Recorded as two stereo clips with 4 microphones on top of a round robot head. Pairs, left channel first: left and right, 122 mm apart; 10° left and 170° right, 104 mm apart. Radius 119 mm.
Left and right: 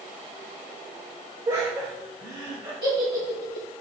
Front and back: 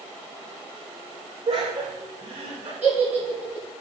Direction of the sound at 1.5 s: 150° right.